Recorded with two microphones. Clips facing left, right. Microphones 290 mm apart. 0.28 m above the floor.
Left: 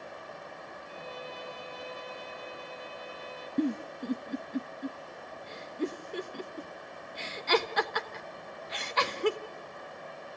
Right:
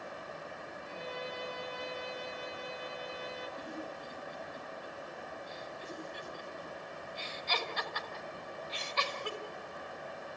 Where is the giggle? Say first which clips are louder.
Left 13 dB; 70° left (ahead or behind), 1.1 m.